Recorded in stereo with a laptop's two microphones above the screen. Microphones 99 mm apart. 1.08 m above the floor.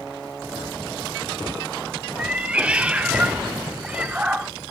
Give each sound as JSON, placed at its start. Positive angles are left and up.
{"t": 2.2, "sound": "a cat meowing", "side_deg": -10, "distance_m": 0.7}